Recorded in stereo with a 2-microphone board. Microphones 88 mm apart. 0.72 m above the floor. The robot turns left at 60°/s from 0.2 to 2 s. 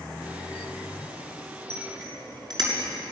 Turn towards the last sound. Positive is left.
turn(degrees=-55)  # may be behind; listen again after turning